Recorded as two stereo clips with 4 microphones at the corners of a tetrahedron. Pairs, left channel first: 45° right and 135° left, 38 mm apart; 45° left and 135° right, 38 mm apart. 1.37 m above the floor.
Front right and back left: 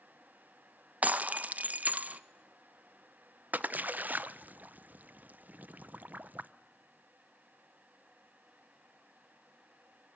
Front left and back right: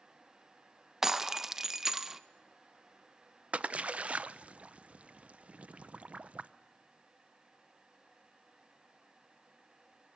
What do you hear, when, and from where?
1.0 s breaking glass: 155° left, 0.6 m
3.5 s a splash: 170° left, 0.6 m